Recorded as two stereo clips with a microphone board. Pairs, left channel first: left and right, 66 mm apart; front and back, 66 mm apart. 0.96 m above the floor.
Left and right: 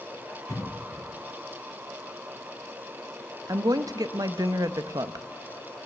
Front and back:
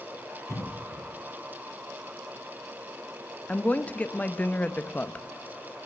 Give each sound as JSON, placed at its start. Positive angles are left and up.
{"t": 0.5, "sound": "a cough", "azimuth_deg": 45, "distance_m": 2.0}
{"t": 3.5, "sound": "a woman speaking", "azimuth_deg": -70, "distance_m": 0.7}